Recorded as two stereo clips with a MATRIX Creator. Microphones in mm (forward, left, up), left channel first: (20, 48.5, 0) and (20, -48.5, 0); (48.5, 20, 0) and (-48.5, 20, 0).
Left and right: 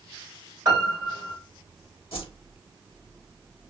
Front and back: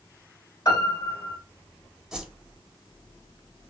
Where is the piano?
35° right, 1.7 m.